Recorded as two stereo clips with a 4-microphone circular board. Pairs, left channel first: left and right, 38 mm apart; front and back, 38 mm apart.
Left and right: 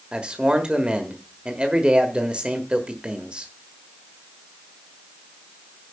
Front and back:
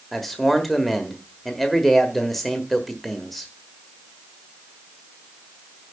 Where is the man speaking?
75° right, 1.3 m.